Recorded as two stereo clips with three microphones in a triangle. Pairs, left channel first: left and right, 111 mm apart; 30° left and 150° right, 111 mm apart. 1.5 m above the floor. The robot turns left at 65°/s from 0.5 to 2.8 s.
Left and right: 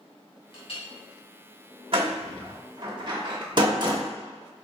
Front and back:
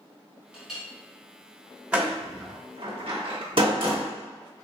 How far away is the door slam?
About 1.1 m.